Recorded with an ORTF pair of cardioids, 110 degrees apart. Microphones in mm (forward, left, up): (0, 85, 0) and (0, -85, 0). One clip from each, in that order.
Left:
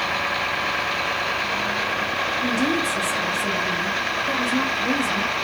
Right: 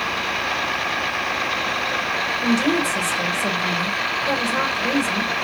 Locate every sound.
2.4 s a woman speaking: 25° right, 1.6 m